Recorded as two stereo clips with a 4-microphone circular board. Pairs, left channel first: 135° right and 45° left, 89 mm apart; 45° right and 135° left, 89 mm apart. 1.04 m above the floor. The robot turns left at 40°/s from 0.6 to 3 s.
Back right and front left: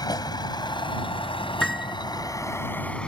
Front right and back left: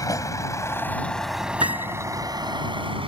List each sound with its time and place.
0.0 s a vehicle: 95° right; by 3.1 s 145° left
1.6 s a piano: 140° left; by 1.9 s 125° left